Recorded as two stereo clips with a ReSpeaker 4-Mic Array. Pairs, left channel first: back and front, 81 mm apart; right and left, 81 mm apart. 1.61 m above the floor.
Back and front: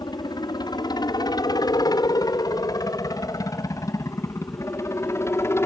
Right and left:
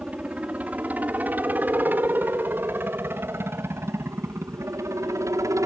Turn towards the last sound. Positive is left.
turn(degrees=130)